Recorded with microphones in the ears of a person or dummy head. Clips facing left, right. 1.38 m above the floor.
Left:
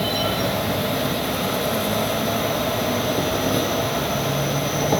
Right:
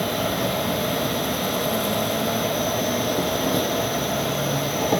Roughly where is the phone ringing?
I don't hear a phone ringing.